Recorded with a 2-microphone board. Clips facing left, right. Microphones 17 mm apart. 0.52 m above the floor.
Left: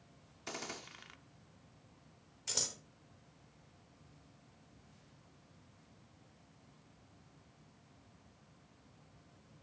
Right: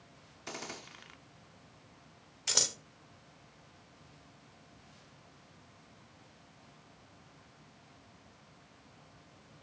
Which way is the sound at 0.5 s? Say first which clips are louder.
Right 1 dB; centre (ahead or behind).